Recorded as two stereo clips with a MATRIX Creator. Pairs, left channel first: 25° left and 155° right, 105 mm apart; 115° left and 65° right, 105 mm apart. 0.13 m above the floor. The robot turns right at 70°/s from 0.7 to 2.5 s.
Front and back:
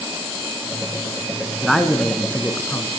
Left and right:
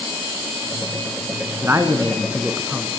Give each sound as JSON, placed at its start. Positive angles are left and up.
{"t": 1.6, "sound": "a man speaking", "azimuth_deg": -65, "distance_m": 1.1}